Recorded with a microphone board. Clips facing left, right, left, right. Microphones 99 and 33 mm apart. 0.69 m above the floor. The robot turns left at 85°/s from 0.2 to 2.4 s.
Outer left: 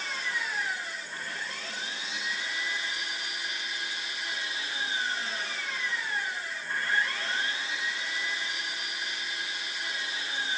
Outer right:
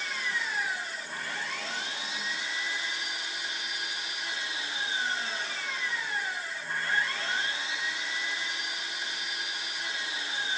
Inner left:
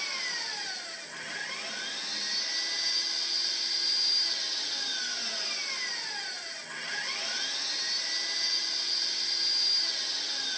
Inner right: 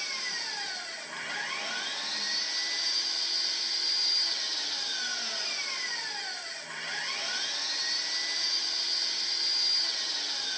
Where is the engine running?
30° left, 6 m; by 10.6 s 160° right, 6 m.